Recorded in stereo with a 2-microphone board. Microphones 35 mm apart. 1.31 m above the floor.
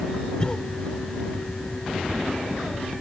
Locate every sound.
0.4 s a cough: 20° left (ahead or behind)